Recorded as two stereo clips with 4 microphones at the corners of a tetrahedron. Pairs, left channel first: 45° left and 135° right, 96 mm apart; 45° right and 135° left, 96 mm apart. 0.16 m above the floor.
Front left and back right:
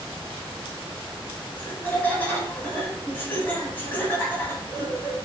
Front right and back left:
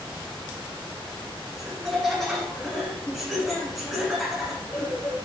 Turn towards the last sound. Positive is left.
turn(degrees=50)